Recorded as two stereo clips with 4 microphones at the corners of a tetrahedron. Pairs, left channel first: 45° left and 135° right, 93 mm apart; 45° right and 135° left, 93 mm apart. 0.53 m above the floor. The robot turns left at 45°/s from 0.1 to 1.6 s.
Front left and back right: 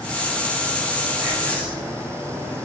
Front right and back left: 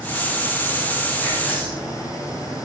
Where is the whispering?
145° right, 1.1 m; by 1.9 s 160° right, 1.1 m.